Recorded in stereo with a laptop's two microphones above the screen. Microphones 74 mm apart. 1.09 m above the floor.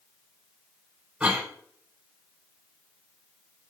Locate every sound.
1.2 s a cough: 15° right (ahead or behind), 1.7 m